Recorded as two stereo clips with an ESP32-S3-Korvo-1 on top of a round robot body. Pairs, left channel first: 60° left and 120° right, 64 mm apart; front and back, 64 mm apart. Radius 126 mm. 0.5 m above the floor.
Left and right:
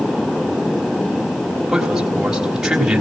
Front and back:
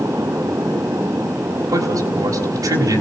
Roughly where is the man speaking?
Behind.